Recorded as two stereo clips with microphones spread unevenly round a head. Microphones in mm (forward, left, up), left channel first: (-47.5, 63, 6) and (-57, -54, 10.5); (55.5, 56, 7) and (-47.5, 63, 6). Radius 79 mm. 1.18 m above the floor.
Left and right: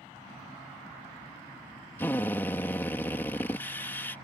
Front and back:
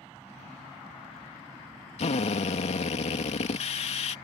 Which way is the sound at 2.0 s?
10° left.